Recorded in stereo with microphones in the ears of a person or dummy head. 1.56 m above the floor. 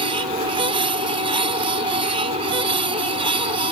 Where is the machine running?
30° right (ahead or behind).